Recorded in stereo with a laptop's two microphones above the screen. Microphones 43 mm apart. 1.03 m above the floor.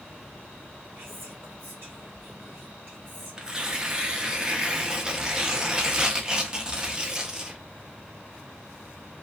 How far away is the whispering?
About 0.6 m.